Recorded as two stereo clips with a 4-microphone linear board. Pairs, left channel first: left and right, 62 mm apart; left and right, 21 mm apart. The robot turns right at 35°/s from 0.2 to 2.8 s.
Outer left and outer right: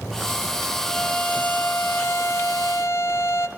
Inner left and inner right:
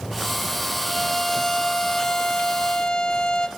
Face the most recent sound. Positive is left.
turn(degrees=90)